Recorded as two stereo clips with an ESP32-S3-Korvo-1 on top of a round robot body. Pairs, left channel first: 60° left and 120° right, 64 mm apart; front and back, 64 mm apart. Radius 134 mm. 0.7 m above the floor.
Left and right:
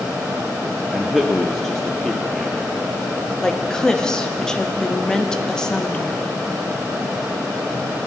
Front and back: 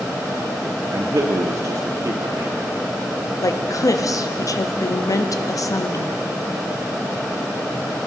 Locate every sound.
0.9 s a man speaking: 145° left, 0.9 m
3.4 s a woman speaking: 15° right, 1.0 m